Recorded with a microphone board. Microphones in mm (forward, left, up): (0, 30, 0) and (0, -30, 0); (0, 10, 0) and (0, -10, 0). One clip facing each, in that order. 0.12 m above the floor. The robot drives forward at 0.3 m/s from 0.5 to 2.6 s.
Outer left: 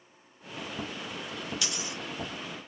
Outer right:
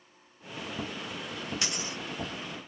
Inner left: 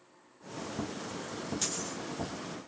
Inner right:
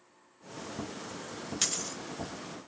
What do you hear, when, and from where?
1.6 s a dropped coin: 35° right (ahead or behind), 0.7 m